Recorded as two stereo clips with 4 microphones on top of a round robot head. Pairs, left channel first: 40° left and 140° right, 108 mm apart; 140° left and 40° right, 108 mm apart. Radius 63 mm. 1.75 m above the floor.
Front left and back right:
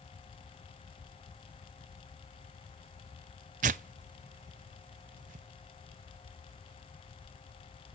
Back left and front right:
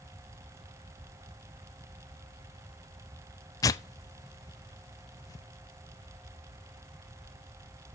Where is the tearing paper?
155° right, 0.6 m.